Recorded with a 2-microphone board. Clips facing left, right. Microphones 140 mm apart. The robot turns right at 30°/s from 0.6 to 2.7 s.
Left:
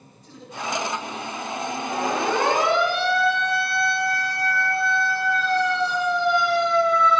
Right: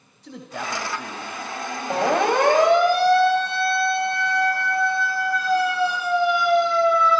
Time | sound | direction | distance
0.2 | a man speaking | 90° right | 4 m
1.9 | a siren | 80° right | 3.5 m